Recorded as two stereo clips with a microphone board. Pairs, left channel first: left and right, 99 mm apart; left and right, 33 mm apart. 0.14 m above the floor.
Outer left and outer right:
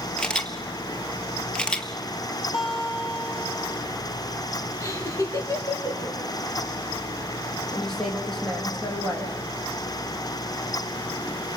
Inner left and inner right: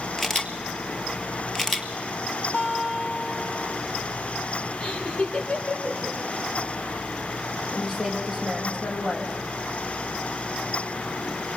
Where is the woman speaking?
5° left (ahead or behind), 5 m.